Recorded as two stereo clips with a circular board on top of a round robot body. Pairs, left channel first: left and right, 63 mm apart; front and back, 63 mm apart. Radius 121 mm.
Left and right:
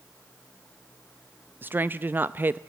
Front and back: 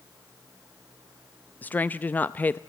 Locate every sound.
1.6 s a woman speaking: 50° right, 0.7 m